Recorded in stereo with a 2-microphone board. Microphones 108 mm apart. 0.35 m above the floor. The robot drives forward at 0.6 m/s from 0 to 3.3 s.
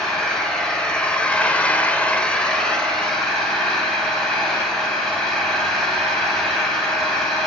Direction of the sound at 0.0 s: 5° left (ahead or behind).